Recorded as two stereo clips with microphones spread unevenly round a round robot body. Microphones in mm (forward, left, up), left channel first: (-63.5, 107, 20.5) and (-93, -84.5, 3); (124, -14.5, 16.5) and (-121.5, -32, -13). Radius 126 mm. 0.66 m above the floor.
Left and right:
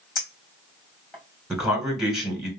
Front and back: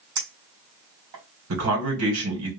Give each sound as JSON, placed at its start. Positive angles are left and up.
{"t": 0.2, "sound": "a clink", "azimuth_deg": 170, "distance_m": 2.5}
{"t": 1.5, "sound": "a man speaking", "azimuth_deg": 175, "distance_m": 2.5}